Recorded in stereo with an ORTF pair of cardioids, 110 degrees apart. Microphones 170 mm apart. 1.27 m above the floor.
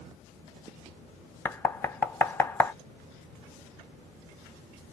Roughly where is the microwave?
I don't hear a microwave.